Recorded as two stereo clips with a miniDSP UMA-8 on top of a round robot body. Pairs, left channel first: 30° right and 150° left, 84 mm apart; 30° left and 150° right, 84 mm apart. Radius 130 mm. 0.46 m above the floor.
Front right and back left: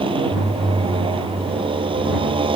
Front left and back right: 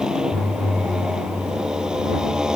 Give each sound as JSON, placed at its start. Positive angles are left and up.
{"t": 0.0, "sound": "a motorcycle", "azimuth_deg": 130}